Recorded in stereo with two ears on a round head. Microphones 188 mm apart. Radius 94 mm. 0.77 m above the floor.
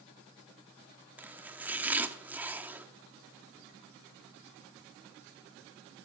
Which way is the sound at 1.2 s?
10° right (ahead or behind).